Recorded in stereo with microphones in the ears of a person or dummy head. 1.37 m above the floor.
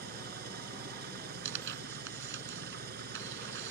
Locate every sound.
0.0 s an engine running: 60° right (ahead or behind)
1.4 s tearing paper: 75° right (ahead or behind)